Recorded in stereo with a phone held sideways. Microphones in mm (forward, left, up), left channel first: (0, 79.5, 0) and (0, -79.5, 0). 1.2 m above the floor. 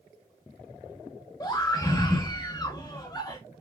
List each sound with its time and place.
1.4 s a scream: 20° left (ahead or behind), 1.1 m